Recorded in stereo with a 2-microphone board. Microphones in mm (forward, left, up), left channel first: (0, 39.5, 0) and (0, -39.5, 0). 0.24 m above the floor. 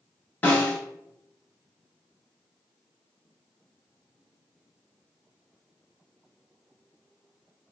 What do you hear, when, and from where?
0.4 s a snare drum: 25° left (ahead or behind), 0.9 m